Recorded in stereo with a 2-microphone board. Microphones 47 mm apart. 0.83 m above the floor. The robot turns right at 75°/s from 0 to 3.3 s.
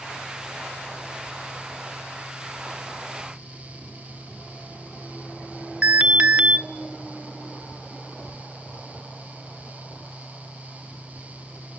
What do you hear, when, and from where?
5.8 s an alarm: 30° right (ahead or behind), 1.2 m